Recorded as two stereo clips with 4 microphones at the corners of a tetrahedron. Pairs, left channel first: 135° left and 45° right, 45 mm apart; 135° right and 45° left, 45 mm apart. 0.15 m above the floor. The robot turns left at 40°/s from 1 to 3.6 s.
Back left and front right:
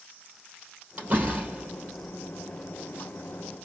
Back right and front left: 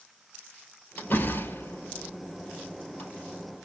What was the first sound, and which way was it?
A door slam, 85° right.